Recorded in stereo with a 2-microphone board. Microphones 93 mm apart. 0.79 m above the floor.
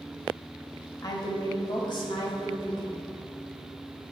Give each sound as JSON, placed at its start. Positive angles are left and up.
{"t": 1.0, "sound": "a woman speaking", "side_deg": 40, "distance_m": 1.0}